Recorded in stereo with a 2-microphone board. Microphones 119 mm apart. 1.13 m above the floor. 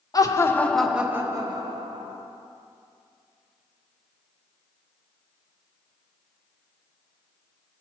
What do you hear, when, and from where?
0.1 s laughter: 30° left (ahead or behind), 0.7 m; by 2.2 s 50° right (ahead or behind), 1.0 m